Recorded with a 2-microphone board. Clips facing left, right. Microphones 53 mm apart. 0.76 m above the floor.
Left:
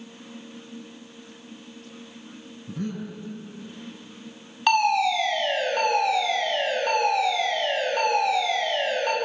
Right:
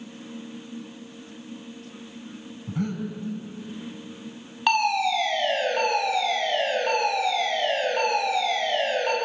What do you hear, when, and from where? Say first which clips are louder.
2.7 s breathing: right 3 dB; 55° right (ahead or behind), 5.5 m
4.7 s a fire alarm: left 2 dB; 5° right (ahead or behind), 9.5 m